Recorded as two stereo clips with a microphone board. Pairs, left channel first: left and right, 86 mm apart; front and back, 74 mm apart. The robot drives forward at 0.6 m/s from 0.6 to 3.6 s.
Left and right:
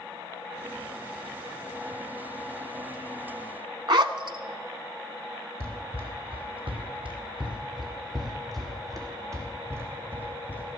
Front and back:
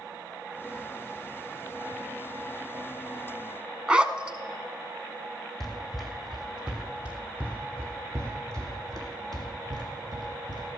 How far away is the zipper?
About 0.8 m.